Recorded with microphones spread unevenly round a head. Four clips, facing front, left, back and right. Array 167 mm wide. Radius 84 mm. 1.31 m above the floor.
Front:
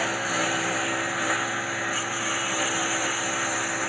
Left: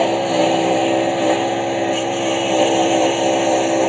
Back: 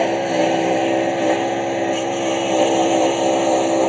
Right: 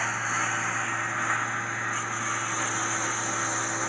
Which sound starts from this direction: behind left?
A lawn mower, at 0.0 s.